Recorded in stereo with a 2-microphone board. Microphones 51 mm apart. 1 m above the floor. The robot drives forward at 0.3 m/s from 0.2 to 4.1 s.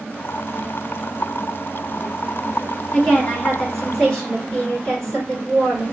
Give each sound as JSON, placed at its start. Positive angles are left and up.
{"t": 2.9, "sound": "a woman speaking", "side_deg": 15, "distance_m": 1.6}